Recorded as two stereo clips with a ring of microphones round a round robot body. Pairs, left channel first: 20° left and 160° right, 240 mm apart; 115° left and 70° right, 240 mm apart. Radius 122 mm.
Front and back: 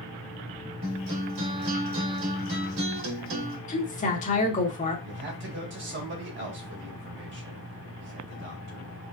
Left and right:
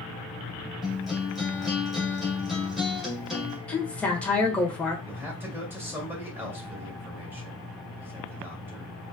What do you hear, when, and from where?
0.8 s a guitar: 155° right, 2.5 m
3.7 s a woman speaking: 30° left, 1.2 m
5.0 s a man speaking: 145° right, 2.0 m